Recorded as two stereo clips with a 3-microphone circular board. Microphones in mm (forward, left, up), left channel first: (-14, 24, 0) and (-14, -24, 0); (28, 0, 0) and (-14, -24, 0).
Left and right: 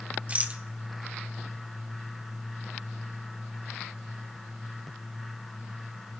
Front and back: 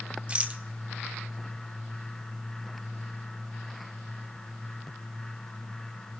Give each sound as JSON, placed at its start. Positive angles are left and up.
{"t": 0.3, "sound": "a rattle", "azimuth_deg": -110, "distance_m": 1.2}